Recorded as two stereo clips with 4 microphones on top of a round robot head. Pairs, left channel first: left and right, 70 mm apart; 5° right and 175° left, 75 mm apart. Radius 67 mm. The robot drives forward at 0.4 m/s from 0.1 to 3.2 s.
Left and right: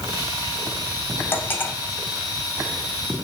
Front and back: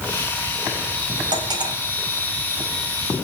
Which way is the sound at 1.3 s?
150° left.